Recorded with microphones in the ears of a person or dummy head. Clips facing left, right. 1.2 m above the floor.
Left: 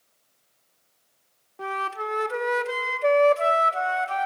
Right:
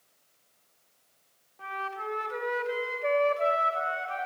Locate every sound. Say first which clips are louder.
1.6 s a flute: left 6 dB; 60° left (ahead or behind), 1.0 m